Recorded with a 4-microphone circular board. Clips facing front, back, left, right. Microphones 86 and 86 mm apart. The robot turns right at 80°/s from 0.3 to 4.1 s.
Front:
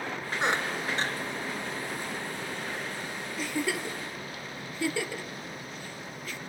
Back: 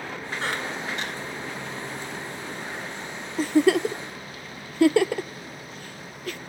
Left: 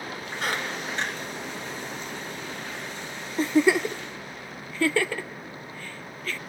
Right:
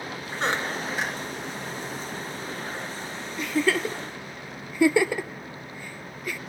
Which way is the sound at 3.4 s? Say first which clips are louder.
Back 13 dB, left 4 dB; 135° left.